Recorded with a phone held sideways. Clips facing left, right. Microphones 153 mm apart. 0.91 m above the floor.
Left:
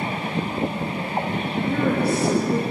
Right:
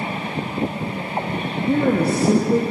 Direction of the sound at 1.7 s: 40° right (ahead or behind).